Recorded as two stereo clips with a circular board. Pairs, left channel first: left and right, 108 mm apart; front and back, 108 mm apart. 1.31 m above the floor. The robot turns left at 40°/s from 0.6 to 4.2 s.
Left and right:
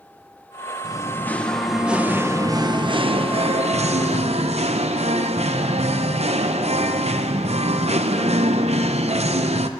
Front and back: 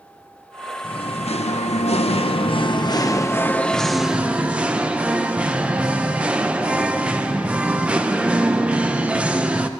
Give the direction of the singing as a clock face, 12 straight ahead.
11 o'clock.